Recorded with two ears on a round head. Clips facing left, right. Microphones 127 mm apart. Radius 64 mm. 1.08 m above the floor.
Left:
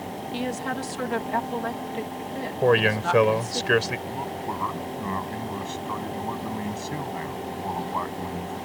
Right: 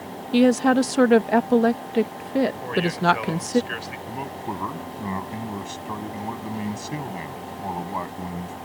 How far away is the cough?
No cough in this recording.